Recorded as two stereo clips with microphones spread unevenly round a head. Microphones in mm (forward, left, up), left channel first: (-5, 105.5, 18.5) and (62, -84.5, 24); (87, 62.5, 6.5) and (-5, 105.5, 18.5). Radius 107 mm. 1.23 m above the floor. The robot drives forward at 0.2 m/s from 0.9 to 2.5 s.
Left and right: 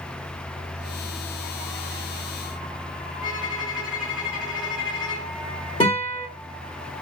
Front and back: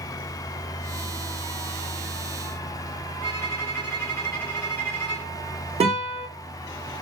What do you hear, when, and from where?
3.2 s a violin: 45° left, 3.5 m
5.8 s a guitar: 175° left, 1.7 m